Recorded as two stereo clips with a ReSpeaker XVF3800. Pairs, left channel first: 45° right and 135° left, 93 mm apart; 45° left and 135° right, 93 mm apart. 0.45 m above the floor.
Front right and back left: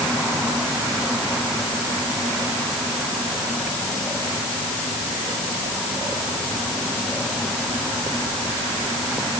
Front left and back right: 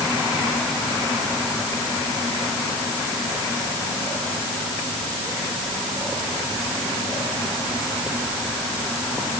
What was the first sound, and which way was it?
Only background noise.